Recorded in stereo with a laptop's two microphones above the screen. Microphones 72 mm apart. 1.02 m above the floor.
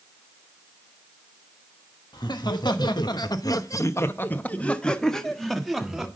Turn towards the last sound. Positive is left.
turn(degrees=-5)  # may be behind; listen again after turning